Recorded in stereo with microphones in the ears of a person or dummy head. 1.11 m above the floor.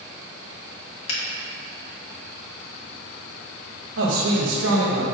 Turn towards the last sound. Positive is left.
turn(degrees=-80)